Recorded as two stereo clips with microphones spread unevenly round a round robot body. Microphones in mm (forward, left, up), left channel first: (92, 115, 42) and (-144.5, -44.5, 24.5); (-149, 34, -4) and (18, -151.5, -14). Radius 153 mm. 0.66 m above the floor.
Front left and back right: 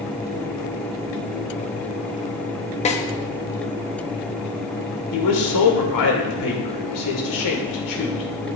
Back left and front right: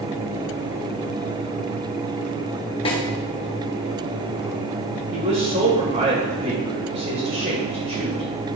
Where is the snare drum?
80° left, 1.2 m.